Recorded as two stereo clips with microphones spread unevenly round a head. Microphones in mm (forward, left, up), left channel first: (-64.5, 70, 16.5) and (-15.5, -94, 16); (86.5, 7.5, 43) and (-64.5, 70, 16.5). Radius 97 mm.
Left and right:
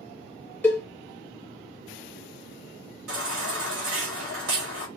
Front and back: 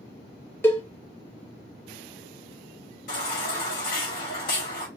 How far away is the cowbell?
About 0.6 m.